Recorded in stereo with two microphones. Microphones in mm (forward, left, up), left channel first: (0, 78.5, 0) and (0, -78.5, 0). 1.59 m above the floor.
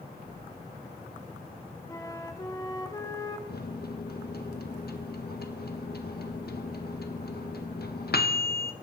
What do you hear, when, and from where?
1.9 s a flute: 20° left (ahead or behind), 1.4 m
3.5 s a microwave: 70° left (ahead or behind), 1.4 m